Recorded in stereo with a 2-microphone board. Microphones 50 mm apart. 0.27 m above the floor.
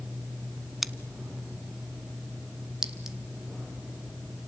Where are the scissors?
Centre (ahead or behind), 0.7 m.